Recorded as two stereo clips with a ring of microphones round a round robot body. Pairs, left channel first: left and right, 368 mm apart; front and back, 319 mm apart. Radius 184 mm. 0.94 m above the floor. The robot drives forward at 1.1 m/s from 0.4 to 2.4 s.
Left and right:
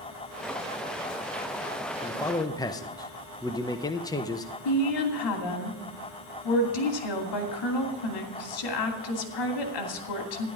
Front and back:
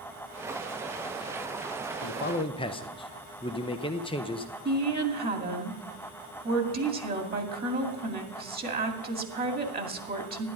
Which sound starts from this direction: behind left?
A woman speaking, at 4.7 s.